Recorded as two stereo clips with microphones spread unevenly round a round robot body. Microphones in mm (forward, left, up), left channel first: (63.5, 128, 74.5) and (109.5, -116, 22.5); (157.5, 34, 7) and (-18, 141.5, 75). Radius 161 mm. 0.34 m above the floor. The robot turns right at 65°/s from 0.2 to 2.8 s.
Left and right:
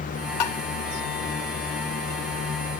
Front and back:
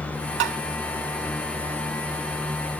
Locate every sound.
0.4 s tapping: 130° left; by 0.6 s 145° left